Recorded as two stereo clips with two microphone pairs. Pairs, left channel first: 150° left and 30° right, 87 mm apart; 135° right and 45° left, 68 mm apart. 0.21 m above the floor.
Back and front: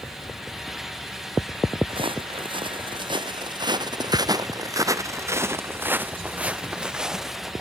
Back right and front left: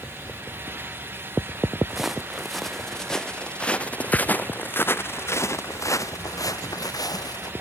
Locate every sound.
1.9 s footsteps: 40° right; by 7.5 s 115° right